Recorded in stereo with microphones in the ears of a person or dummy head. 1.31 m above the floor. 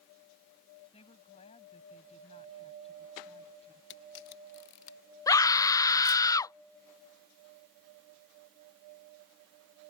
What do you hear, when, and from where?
0.9 s a woman speaking: 30° left (ahead or behind)
3.9 s a camera shutter: 65° left (ahead or behind)
5.3 s a scream: 20° left (ahead or behind)